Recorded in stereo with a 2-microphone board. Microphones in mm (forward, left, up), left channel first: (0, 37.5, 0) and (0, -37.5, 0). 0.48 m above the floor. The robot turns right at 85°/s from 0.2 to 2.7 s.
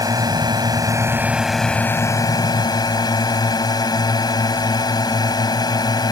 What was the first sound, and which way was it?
A drone, 115° right.